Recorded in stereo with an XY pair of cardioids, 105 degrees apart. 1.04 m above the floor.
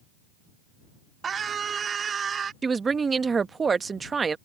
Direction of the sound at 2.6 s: 35° right.